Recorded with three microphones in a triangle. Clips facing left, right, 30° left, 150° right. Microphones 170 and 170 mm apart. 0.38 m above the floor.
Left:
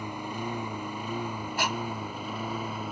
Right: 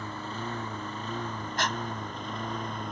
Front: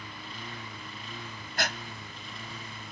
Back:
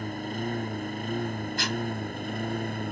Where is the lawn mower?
170° left; by 2.9 s 175° left.